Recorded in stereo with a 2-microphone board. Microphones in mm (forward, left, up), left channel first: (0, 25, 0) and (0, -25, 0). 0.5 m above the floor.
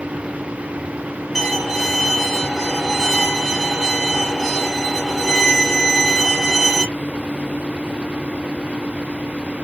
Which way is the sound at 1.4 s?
5° right (ahead or behind).